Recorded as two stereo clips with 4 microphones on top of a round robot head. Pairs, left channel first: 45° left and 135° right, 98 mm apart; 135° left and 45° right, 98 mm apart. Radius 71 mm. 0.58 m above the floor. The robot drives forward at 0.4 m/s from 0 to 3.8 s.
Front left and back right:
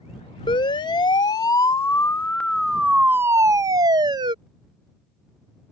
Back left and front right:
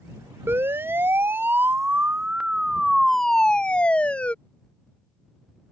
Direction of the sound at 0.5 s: 20° left.